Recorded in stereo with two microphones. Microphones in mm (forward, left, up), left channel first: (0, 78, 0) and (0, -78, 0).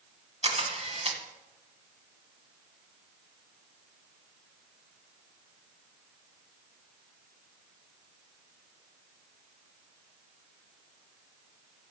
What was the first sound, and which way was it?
A camera shutter, 45° right (ahead or behind).